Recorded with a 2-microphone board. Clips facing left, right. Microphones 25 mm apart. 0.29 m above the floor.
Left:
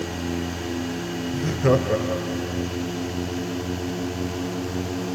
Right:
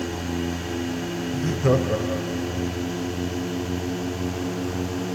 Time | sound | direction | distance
1.3 | laughter | 15° left (ahead or behind) | 1.0 m